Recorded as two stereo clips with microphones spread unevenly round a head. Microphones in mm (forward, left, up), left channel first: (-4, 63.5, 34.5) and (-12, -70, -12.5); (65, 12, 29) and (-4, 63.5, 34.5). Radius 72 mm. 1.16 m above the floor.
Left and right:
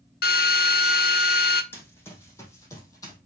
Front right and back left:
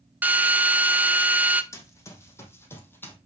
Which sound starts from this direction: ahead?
Running footsteps, at 1.7 s.